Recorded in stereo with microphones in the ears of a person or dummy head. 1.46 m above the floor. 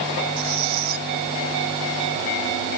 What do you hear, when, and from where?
0.4 s a squeak: 55° right (ahead or behind)